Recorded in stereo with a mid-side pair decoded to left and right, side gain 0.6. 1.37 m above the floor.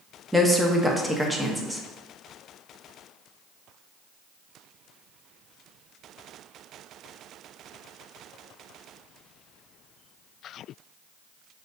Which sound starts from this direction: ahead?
A woman speaking, at 0.3 s.